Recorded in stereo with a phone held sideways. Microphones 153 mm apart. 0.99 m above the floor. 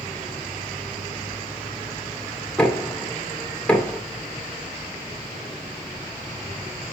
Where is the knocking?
10° left (ahead or behind), 3 m.